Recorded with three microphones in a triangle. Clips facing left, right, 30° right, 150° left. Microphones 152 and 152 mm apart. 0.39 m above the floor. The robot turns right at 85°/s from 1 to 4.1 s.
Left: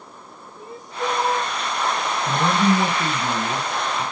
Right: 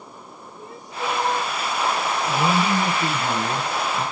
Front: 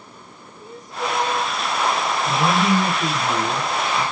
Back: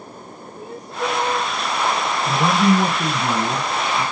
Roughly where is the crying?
Behind left.